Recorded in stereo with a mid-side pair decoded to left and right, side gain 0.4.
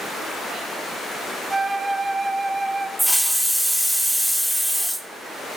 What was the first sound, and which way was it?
A flute, 20° right.